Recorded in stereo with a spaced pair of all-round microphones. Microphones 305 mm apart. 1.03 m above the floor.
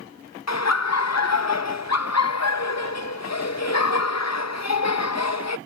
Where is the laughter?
60° left (ahead or behind).